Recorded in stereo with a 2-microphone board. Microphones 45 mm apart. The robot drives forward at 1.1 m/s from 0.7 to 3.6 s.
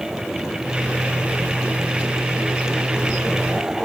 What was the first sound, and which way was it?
Only background noise.